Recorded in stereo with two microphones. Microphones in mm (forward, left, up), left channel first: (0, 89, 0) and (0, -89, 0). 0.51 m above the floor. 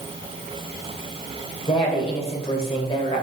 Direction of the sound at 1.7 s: 35° left (ahead or behind).